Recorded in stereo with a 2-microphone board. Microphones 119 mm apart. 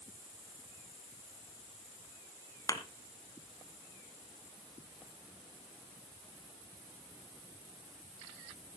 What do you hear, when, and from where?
2.7 s a thud: 30° left (ahead or behind), 1.4 m